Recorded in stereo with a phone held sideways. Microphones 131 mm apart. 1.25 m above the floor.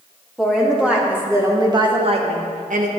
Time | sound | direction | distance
0.4 | a woman speaking | centre (ahead or behind) | 2.5 m